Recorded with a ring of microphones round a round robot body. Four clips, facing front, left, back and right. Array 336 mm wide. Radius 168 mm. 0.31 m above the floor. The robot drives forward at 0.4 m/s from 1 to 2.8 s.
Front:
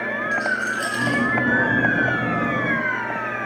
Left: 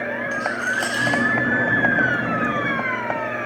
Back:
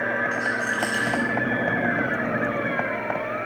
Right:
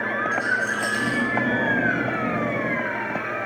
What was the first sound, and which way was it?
A rattle, 80° left.